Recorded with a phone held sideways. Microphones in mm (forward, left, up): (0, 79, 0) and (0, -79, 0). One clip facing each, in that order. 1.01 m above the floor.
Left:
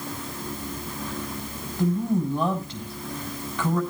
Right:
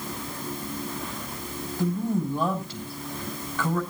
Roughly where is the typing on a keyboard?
I don't hear typing on a keyboard.